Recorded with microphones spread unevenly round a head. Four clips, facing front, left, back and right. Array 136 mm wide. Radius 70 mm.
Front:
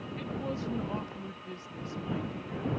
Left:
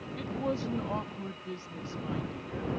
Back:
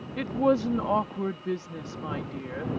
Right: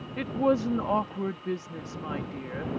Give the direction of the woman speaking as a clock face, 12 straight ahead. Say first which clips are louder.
Right 8 dB, back 13 dB; 5 o'clock.